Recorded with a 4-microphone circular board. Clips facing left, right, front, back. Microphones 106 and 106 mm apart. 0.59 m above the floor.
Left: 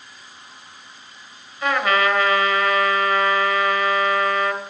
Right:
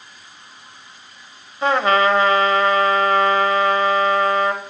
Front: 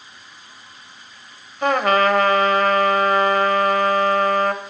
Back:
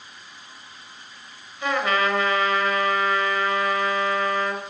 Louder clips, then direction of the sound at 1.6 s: Right 4 dB, front 6 dB; 35° right.